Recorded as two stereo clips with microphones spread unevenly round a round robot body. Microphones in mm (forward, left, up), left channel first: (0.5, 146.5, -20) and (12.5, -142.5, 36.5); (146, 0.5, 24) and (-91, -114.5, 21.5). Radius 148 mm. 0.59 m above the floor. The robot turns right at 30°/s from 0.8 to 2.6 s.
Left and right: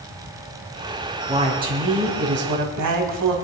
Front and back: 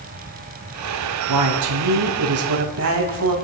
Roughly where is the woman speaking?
Behind.